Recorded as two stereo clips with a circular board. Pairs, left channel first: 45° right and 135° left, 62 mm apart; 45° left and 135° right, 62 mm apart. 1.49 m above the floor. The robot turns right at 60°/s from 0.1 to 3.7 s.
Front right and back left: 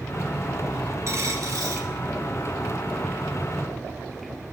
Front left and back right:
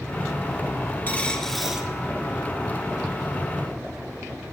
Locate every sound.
1.1 s a dropped coin: 105° left, 2.5 m; by 1.9 s 155° left, 2.5 m